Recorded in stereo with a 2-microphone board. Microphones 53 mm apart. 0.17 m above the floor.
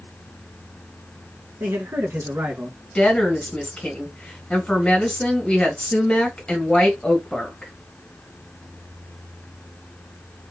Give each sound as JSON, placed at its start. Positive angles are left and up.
{"t": 1.6, "sound": "a man speaking", "side_deg": -60, "distance_m": 1.8}
{"t": 3.0, "sound": "a woman speaking", "side_deg": 15, "distance_m": 1.4}